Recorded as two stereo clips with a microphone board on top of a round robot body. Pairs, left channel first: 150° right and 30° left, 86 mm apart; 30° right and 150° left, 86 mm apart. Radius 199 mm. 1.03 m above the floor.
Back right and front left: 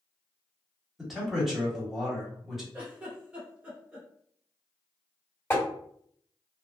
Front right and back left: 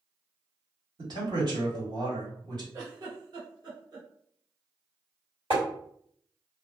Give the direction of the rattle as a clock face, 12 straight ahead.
I don't hear a rattle.